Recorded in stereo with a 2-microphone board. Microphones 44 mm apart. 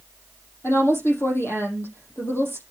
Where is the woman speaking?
70° left (ahead or behind), 6 m.